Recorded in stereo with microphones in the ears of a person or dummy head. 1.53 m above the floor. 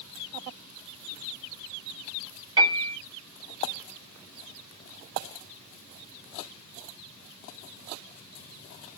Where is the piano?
25° right (ahead or behind), 2.5 m.